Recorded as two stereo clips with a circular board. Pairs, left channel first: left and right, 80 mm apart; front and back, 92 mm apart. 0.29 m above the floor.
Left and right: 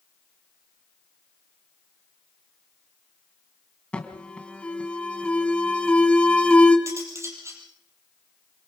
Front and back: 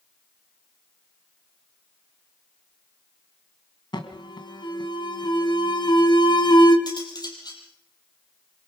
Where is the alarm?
15° left, 2.5 m.